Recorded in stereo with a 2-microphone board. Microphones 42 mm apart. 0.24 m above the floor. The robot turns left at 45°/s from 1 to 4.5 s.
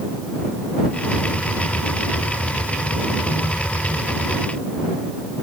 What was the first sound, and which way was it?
Only background noise.